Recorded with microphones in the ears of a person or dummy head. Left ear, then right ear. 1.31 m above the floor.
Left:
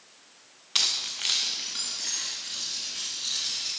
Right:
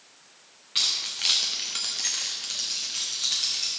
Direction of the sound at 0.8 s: 25° left (ahead or behind).